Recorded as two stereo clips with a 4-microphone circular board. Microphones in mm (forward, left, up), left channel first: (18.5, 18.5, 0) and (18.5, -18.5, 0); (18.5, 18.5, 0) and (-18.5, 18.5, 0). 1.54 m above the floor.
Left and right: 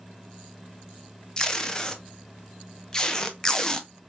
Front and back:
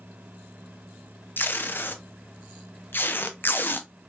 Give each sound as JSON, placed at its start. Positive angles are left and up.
{"t": 1.4, "sound": "tape being pulled", "azimuth_deg": 20, "distance_m": 0.6}